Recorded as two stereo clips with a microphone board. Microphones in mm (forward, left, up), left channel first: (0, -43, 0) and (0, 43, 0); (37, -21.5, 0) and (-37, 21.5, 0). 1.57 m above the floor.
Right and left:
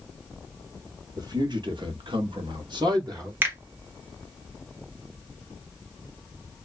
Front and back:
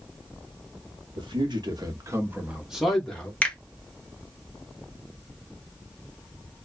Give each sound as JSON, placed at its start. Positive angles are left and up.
{"t": 1.2, "sound": "a man speaking", "azimuth_deg": 130, "distance_m": 1.0}
{"t": 3.4, "sound": "a finger snap", "azimuth_deg": 35, "distance_m": 0.9}